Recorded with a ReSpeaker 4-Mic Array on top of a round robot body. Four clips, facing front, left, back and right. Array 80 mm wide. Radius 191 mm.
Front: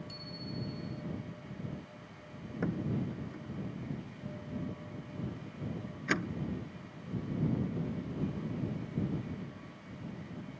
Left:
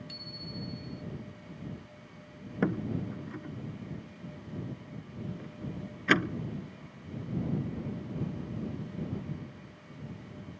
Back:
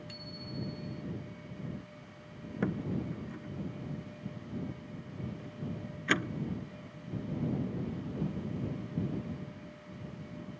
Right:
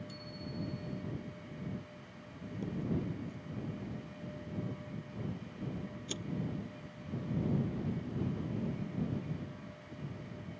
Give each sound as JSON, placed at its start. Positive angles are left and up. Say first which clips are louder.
{"t": 0.1, "sound": "a bicycle bell", "louder": "even, front 1 dB", "azimuth_deg": 160}
{"t": 2.6, "sound": "a door slam", "louder": "left 6 dB, back 1 dB", "azimuth_deg": 95}